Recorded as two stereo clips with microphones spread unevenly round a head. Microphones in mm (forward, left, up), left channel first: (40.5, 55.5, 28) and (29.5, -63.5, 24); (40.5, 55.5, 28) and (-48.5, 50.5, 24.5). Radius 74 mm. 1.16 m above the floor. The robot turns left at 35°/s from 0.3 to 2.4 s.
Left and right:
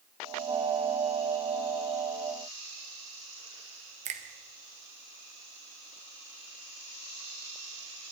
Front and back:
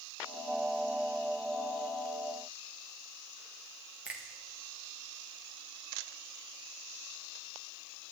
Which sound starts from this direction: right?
A finger snap, at 4.0 s.